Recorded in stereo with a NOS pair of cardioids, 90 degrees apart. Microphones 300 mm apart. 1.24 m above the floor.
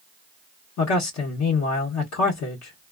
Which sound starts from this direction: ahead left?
A man speaking, at 0.8 s.